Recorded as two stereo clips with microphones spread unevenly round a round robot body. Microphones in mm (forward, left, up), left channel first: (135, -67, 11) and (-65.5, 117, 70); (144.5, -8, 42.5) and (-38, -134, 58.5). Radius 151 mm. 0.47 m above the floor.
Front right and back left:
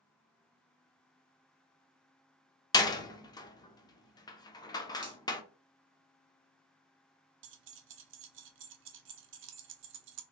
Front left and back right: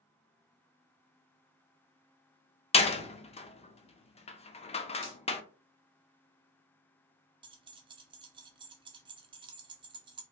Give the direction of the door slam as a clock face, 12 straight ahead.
12 o'clock.